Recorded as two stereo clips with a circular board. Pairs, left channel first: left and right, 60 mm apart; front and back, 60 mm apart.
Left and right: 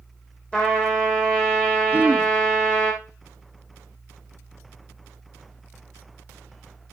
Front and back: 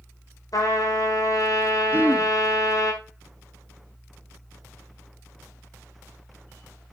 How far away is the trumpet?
About 6.5 m.